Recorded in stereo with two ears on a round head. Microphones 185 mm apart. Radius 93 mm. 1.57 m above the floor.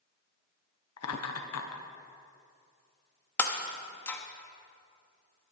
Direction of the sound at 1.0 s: 80° left.